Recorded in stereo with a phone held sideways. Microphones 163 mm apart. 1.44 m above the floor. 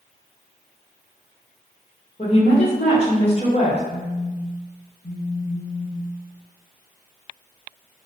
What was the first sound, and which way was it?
A woman speaking, 40° left (ahead or behind).